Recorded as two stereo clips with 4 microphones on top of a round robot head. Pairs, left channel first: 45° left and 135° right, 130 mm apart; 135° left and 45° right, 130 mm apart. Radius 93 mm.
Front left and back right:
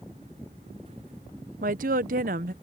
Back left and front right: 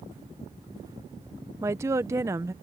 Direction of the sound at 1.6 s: 115° right.